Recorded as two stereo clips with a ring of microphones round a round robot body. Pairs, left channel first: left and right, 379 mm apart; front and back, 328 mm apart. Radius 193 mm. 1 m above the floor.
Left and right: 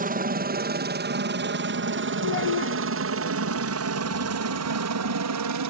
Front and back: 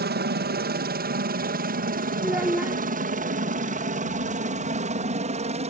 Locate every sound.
0.0 s a helicopter: 140° right; by 5.7 s 115° right
2.2 s a child speaking: 95° left